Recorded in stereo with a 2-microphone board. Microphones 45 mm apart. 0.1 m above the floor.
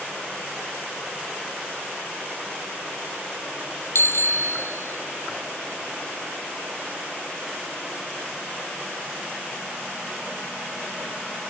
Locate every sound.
4.0 s a bicycle bell: 65° left (ahead or behind); by 5.2 s 60° left (ahead or behind)